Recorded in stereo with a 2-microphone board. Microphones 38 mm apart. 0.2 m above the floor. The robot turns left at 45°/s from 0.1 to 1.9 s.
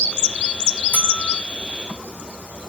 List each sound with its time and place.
0.9 s a bell: 50° left (ahead or behind), 4.5 m; by 1.4 s 30° left (ahead or behind), 4.5 m